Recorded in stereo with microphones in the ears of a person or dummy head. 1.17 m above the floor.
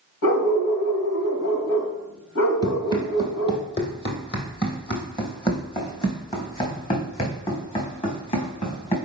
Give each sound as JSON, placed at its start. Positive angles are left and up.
{"t": 0.2, "sound": "a dog barking", "side_deg": 75, "distance_m": 2.5}
{"t": 2.6, "sound": "running footsteps", "side_deg": 25, "distance_m": 1.6}